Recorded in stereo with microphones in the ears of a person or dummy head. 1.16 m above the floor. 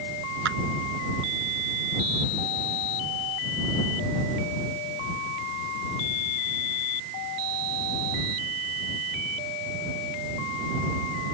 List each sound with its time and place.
0.5 s a clap: 65° right (ahead or behind)